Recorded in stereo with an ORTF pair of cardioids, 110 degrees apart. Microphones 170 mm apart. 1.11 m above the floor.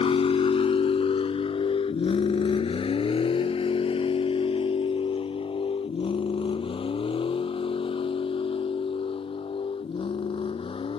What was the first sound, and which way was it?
A vehicle, 35° left.